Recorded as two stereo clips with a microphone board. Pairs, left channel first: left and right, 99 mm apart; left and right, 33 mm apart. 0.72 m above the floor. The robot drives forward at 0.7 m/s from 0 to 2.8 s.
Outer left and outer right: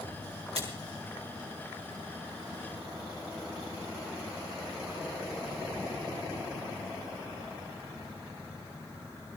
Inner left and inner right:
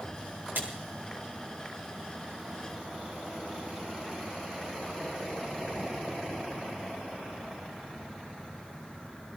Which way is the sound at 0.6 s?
80° right.